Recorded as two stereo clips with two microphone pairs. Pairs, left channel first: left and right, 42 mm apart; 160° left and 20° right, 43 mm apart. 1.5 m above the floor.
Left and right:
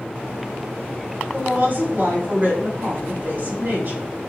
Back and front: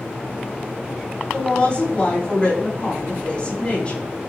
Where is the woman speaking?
135° right, 3 m.